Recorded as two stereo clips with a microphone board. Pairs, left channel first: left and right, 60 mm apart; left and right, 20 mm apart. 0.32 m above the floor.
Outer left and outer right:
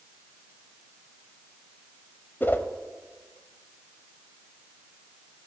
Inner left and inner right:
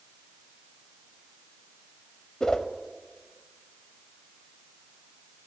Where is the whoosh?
40° left (ahead or behind), 0.7 m.